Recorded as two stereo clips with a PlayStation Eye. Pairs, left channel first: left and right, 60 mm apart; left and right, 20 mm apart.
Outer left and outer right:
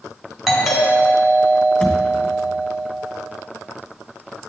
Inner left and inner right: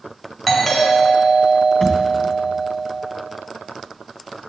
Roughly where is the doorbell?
Centre.